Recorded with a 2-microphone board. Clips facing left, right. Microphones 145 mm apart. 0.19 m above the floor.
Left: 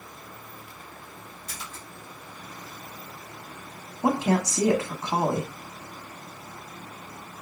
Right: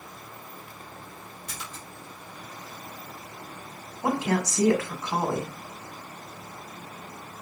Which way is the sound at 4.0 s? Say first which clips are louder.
Left 2 dB; 25° left (ahead or behind).